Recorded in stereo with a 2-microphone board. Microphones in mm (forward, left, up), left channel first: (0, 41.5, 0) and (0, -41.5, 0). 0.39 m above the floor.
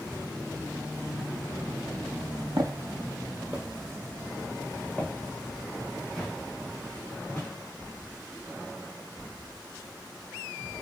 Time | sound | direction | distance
2.6 | footsteps | 65° right (ahead or behind) | 0.9 m